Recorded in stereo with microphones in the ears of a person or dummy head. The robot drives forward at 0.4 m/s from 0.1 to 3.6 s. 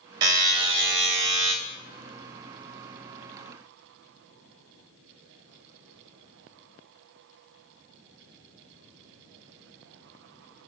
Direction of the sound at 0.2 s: 25° right (ahead or behind).